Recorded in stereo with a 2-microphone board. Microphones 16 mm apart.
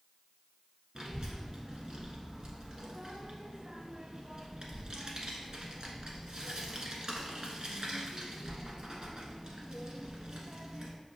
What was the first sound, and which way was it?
A child speaking, 40° right (ahead or behind).